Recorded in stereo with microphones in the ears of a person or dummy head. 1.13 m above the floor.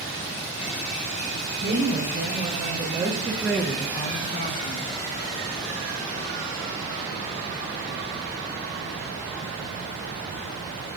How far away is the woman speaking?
About 3 m.